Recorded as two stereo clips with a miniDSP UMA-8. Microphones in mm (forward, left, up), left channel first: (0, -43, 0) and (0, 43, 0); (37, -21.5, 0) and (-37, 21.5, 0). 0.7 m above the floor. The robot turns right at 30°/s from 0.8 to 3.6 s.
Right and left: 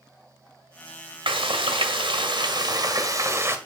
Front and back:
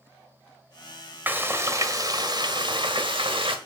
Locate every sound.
1.3 s frying: 80° left, 1.3 m; by 3.6 s 150° left, 1.3 m